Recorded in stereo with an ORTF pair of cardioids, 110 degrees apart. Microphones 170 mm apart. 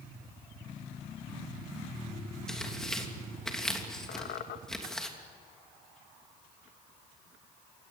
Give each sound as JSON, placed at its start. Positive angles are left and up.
{"t": 2.5, "sound": "tearing paper", "azimuth_deg": 5, "distance_m": 3.0}
{"t": 4.1, "sound": "a squeak", "azimuth_deg": 70, "distance_m": 1.8}